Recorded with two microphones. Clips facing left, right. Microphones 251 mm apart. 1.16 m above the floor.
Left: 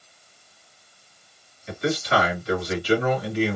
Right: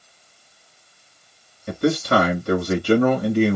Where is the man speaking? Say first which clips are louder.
Right 5 dB; 55° right (ahead or behind), 2.5 m.